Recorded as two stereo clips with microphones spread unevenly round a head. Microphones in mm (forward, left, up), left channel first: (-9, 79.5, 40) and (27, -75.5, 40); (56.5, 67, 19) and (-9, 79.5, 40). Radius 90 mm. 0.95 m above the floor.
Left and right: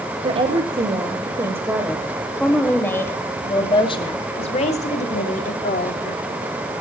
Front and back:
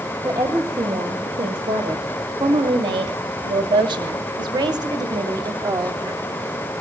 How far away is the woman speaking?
About 2.5 m.